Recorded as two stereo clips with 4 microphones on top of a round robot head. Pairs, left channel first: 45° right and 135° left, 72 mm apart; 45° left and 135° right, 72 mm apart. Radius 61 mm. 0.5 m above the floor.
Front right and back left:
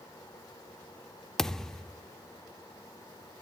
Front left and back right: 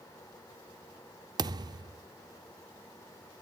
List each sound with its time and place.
1.4 s a thud: 125° right, 0.6 m